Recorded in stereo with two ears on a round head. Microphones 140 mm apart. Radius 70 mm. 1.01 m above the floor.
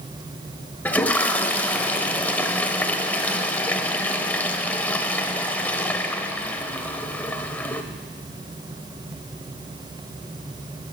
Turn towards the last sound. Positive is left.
turn(degrees=10)  # may be behind; listen again after turning